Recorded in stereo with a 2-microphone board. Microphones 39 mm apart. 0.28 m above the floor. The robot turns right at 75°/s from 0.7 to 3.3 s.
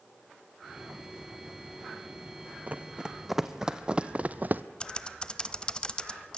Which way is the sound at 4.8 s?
25° left (ahead or behind).